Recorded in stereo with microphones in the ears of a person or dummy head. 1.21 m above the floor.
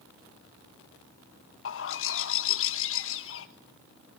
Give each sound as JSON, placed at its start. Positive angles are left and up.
{"t": 1.6, "sound": "a bird", "side_deg": 65, "distance_m": 1.6}